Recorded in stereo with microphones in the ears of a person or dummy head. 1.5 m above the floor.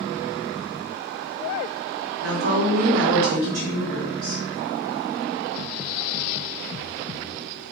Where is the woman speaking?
55° right (ahead or behind), 1.1 m.